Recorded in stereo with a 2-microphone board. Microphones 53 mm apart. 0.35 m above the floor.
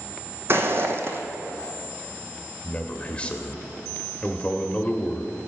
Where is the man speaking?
25° left (ahead or behind), 0.9 m.